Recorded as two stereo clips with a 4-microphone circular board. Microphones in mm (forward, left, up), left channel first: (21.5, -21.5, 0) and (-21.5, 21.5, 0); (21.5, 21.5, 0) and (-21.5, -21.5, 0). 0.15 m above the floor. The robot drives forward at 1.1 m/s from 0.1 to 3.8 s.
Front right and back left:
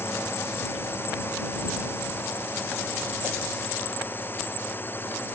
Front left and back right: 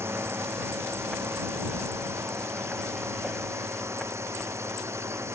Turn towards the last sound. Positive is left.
turn(degrees=-100)